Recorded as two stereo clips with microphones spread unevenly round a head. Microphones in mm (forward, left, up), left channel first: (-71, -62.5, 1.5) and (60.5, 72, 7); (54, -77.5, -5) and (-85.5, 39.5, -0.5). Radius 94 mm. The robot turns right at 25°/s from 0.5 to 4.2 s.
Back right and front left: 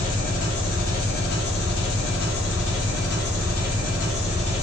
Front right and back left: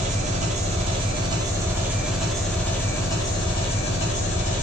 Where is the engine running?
175° right, 0.7 m; by 4.7 s 85° right, 0.7 m.